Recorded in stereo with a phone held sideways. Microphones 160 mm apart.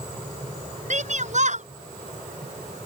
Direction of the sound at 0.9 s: 50° right (ahead or behind).